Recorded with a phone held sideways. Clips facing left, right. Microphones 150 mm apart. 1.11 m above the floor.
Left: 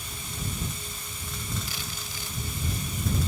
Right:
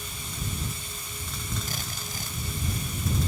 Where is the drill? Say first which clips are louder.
Right 2 dB; 45° right (ahead or behind).